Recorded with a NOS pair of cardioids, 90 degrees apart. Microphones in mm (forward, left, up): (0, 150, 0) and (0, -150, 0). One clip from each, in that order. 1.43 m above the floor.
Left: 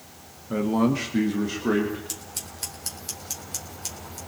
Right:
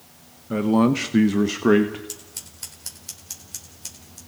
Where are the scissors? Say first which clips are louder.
Left 3 dB; 15° left, 4 m.